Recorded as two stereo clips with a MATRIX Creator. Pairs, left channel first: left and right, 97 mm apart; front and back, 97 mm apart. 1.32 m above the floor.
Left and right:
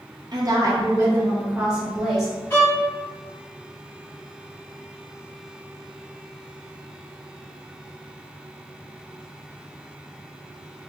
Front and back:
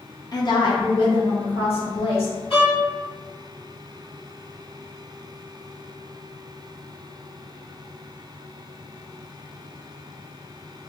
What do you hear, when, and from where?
0.3 s a woman speaking: 45° right, 0.8 m; by 2.3 s straight ahead, 1.5 m
2.5 s a violin: 25° left, 1.5 m